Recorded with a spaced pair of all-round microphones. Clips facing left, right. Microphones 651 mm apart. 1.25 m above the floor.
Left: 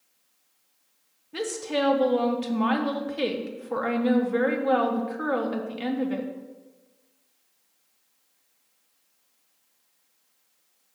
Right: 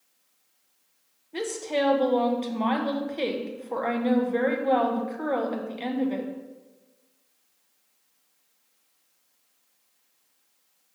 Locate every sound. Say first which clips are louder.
1.3 s a woman speaking: even; 40° left (ahead or behind), 0.9 m